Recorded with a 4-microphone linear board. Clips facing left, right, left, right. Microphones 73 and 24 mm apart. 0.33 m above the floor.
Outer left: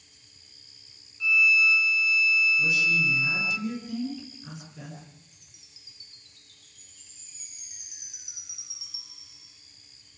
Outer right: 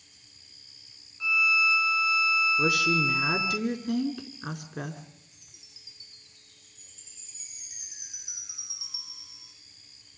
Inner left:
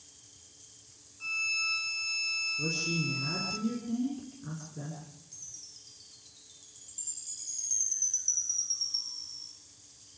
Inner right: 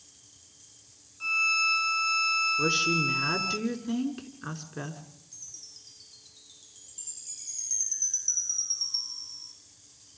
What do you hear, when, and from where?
1.2 s a violin: 30° right (ahead or behind), 1.2 m
2.6 s a woman speaking: 65° right (ahead or behind), 4.5 m
5.3 s a chime: 25° right (ahead or behind), 4 m